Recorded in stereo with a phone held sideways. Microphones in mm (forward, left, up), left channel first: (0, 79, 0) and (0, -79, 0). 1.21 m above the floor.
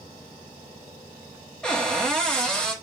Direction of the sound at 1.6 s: 5° left (ahead or behind).